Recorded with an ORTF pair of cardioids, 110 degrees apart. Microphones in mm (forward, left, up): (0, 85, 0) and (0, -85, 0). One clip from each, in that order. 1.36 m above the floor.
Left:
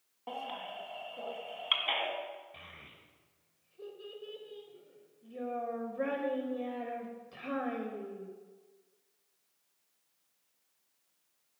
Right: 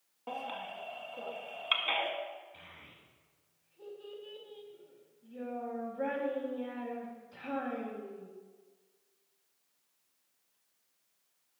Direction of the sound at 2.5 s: 45° left.